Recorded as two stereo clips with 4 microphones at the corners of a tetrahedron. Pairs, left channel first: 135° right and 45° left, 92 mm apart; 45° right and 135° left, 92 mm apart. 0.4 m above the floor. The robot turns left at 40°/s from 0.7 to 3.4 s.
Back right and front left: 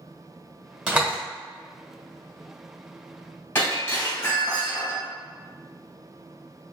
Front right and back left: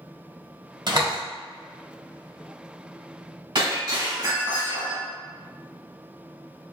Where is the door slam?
120° left, 1.3 m; by 1.2 s 110° left, 1.3 m.